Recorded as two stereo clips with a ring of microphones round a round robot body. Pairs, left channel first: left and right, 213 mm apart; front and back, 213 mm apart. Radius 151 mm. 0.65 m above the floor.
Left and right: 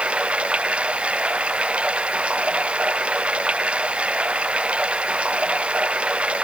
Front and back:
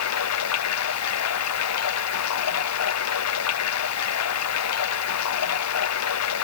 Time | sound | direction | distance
0.0 | running water | 5° right | ?